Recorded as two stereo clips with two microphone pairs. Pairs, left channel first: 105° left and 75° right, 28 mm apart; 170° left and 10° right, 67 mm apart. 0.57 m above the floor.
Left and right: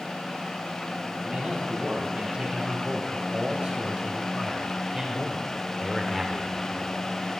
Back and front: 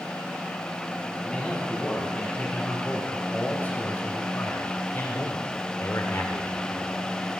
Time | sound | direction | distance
1.2 | a man speaking | 115° right | 5 m